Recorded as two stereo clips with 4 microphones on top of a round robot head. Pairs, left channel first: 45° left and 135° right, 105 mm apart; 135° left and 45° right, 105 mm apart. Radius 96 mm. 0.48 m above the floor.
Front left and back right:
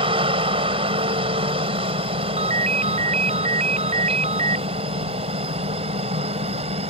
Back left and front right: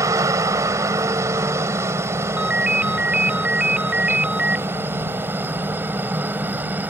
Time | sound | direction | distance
0.0 | a helicopter | 105° right | ?
2.4 | a ringtone | 125° right | ?